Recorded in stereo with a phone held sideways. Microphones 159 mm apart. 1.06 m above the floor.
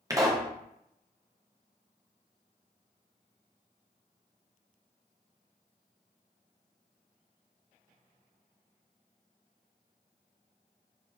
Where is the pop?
20° right (ahead or behind), 0.6 m.